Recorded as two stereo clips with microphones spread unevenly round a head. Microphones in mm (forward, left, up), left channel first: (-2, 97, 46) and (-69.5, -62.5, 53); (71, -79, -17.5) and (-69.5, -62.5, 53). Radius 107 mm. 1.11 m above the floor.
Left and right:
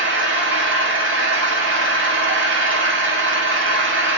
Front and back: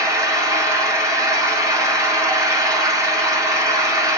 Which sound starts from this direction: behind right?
An engine running, at 0.0 s.